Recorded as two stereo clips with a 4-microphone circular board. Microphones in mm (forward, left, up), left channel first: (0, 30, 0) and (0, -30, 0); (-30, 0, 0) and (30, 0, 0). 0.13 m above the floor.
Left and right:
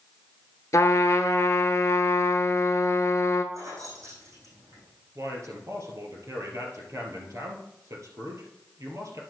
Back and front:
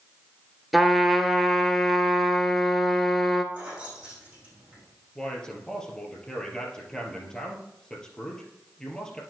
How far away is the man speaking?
About 2.5 m.